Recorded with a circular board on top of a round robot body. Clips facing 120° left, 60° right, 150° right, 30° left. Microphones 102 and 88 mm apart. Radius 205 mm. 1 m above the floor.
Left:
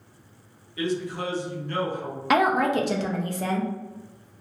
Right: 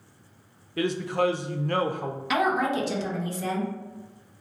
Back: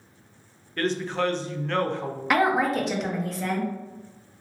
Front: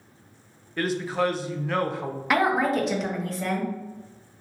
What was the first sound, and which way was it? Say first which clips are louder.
A man speaking: right 3 dB, front 1 dB; 50° right.